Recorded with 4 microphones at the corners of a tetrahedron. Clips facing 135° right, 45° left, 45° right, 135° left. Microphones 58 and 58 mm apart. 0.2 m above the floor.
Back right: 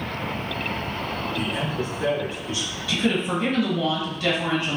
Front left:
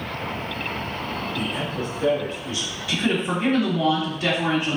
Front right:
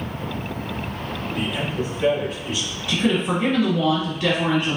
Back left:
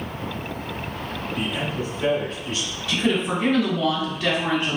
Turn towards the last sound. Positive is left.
turn(degrees=15)